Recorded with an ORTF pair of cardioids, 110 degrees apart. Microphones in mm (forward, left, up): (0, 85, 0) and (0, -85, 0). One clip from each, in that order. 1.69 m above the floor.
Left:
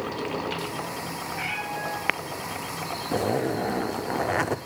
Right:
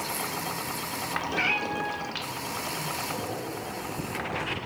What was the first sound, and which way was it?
A cat meowing, 40° right.